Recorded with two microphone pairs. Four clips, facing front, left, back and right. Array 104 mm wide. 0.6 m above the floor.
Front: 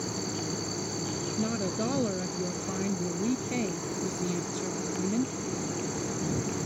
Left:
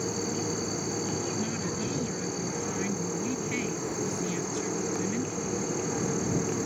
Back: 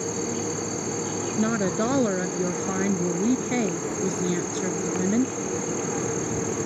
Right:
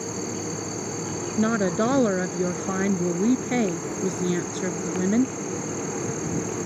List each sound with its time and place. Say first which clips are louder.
0.0 s an insect: right 1 dB, back 6 dB; 175° left
1.4 s a woman speaking: right 10 dB, back 7 dB; 115° right